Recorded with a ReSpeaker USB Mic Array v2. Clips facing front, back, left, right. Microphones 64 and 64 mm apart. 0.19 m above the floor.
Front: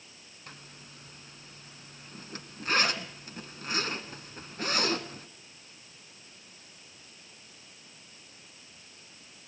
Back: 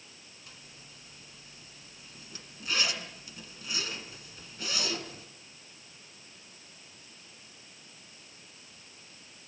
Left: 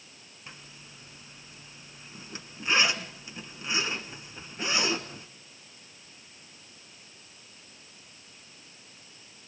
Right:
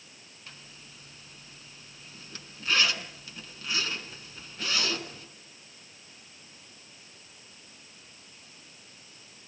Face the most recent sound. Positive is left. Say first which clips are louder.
# front 6 dB, left 2 dB
turn(degrees=25)